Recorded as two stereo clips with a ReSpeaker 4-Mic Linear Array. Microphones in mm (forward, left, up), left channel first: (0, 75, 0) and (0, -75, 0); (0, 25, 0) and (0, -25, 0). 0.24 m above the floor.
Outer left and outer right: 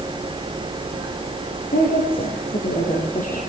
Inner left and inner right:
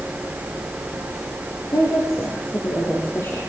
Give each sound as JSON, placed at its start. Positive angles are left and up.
{"t": 1.7, "sound": "a woman speaking", "side_deg": 70, "distance_m": 6.0}